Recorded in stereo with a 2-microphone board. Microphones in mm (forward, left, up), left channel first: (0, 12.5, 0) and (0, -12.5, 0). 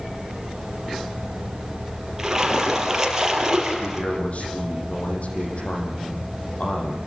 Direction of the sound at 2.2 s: 20° right (ahead or behind).